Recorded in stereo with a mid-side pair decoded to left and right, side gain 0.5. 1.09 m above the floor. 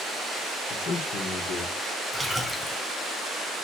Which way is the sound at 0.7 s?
60° left.